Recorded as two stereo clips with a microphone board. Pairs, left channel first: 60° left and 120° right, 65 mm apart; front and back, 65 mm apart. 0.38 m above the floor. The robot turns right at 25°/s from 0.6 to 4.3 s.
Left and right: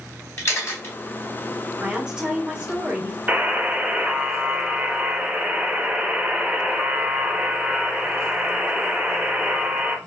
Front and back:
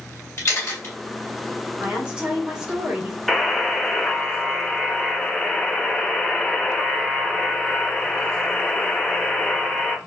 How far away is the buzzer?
About 0.7 m.